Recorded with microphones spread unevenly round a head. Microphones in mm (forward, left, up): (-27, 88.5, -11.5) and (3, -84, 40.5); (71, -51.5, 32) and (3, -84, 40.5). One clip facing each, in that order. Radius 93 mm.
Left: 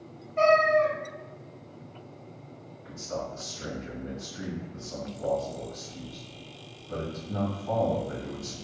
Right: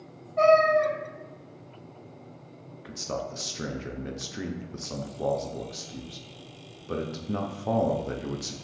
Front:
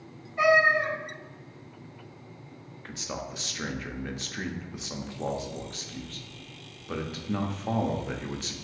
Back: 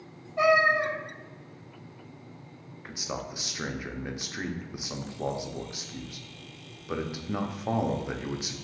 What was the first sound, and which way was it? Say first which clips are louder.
A cat meowing: right 2 dB, front 1 dB; 160° left.